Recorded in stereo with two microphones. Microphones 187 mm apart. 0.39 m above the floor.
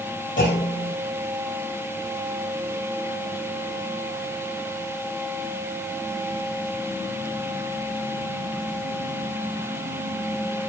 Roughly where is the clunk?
Left.